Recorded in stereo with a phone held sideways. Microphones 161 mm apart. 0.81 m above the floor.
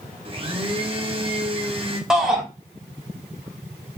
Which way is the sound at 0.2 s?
35° right (ahead or behind).